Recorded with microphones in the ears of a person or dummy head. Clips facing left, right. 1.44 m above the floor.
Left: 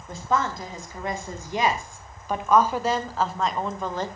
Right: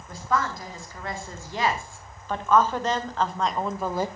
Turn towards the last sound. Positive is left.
turn(degrees=-10)  # may be behind; listen again after turning